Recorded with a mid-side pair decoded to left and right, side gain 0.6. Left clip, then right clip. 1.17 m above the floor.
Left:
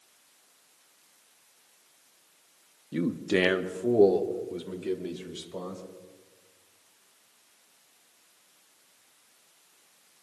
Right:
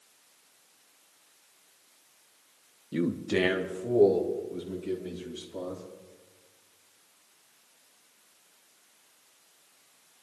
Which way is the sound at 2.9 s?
5° right.